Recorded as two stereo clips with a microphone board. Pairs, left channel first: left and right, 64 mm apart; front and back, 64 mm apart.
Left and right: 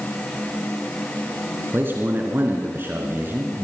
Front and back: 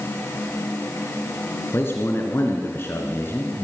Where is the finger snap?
No finger snap in this recording.